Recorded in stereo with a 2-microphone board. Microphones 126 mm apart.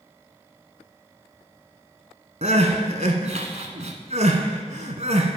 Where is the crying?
70° right (ahead or behind), 0.9 m.